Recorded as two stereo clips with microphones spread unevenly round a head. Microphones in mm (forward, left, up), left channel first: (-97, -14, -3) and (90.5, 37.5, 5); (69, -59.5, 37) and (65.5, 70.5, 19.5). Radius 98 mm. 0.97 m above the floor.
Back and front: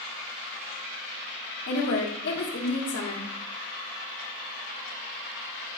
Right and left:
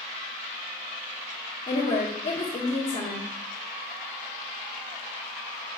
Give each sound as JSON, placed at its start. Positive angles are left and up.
{"t": 1.7, "sound": "a woman speaking", "azimuth_deg": -140, "distance_m": 1.5}